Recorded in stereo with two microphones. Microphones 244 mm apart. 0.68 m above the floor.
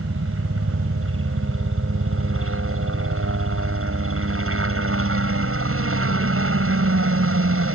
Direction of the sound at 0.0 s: 60° right (ahead or behind).